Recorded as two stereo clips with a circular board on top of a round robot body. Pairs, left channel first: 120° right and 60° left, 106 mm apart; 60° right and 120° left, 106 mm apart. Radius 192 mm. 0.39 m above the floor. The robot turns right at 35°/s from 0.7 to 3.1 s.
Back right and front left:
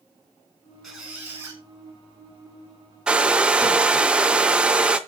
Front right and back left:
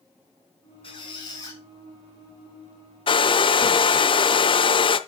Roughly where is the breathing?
I don't hear breathing.